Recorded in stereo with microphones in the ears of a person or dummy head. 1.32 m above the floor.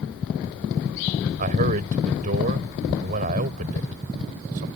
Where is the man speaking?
40° right (ahead or behind).